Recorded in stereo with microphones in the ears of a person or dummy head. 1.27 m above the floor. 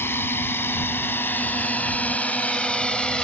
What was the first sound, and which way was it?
A drone, 10° left (ahead or behind).